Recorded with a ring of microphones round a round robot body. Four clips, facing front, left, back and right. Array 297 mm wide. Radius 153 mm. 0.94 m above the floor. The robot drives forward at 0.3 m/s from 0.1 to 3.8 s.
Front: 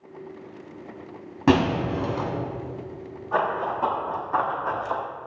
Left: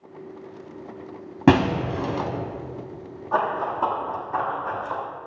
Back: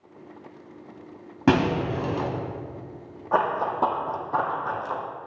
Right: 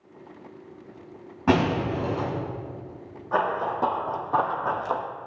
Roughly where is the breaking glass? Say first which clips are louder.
Left 4 dB, front 1 dB; left.